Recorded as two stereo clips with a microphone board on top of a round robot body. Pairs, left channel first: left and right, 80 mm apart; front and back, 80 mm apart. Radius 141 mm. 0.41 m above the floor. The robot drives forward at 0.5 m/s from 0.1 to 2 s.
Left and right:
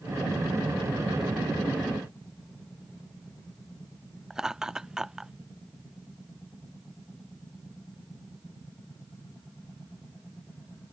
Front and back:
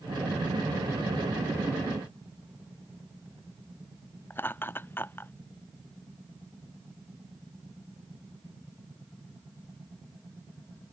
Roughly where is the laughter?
Ahead.